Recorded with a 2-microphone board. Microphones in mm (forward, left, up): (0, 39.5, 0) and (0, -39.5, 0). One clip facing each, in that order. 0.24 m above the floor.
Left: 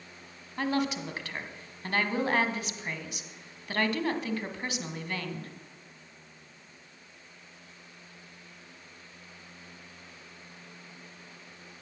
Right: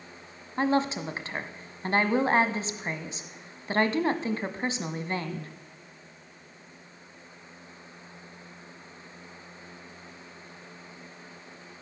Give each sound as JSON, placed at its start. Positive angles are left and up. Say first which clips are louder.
{"t": 0.6, "sound": "a woman speaking", "louder": "right 4 dB", "side_deg": -30, "distance_m": 1.4}